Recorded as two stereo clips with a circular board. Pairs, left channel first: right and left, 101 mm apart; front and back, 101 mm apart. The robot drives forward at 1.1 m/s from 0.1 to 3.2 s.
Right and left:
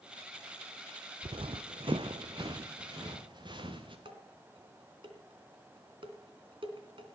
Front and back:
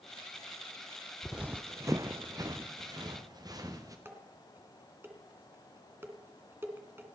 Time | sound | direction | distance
1.2 | running footsteps | 90° left | 0.6 m
4.0 | dishes clattering | 115° left | 2.5 m